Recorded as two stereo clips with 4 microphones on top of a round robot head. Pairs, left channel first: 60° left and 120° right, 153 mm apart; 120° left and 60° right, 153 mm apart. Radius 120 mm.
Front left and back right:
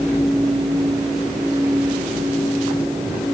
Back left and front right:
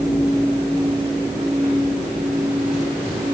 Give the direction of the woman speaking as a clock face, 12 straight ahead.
I don't hear a woman speaking.